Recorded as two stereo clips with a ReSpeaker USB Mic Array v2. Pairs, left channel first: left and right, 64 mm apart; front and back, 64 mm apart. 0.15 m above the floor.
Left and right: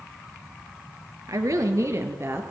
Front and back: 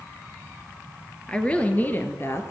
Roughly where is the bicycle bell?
No bicycle bell in this recording.